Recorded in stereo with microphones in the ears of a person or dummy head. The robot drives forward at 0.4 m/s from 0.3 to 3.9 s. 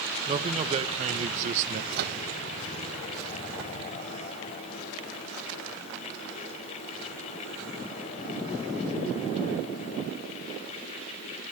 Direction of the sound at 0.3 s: 30° right (ahead or behind).